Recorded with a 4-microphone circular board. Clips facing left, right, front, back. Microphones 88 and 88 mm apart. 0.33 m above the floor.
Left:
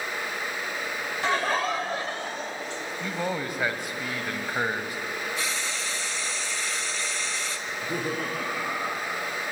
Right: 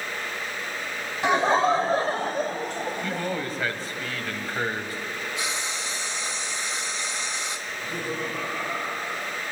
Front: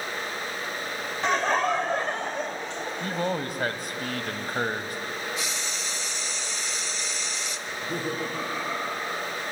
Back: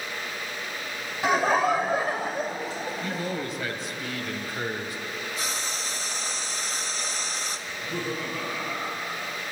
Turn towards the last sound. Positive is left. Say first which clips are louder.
# left 3 dB, front 2 dB
turn(degrees=50)